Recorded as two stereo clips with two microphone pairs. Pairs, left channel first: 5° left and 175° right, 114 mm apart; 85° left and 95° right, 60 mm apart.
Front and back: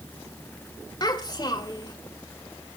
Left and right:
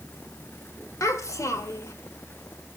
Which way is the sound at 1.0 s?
55° left.